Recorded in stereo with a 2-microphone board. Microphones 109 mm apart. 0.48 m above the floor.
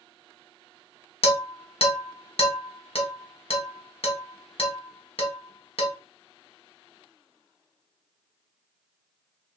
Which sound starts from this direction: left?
Dishes clattering, at 1.2 s.